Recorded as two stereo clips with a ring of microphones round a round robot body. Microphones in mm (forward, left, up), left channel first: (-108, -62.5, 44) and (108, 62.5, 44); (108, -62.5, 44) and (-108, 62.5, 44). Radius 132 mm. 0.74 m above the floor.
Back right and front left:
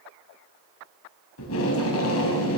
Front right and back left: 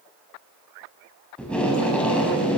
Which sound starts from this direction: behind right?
Tape being pulled, at 1.4 s.